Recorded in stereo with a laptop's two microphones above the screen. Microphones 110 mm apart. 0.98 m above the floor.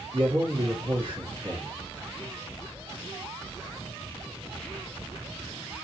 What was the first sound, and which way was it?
A man speaking, 55° right (ahead or behind).